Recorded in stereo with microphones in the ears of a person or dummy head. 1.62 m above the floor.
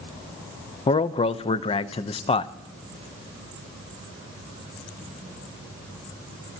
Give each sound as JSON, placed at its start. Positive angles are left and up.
{"t": 0.9, "sound": "a man speaking", "side_deg": 25, "distance_m": 0.7}